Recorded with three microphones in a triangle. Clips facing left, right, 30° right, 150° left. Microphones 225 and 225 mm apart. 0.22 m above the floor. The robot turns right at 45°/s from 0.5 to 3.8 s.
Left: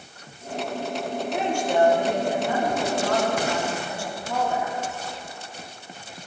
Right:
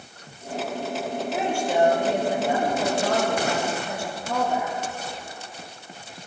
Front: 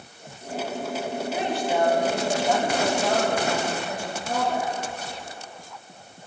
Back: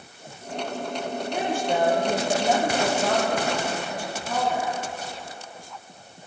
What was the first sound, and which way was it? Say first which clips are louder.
A woman speaking: left 1 dB, back 1 dB; 175° left.